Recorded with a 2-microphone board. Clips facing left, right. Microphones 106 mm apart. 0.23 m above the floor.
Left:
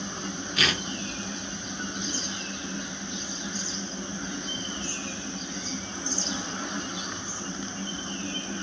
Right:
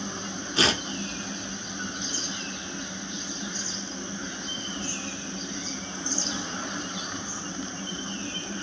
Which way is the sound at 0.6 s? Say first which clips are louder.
Right 4 dB; 30° right (ahead or behind).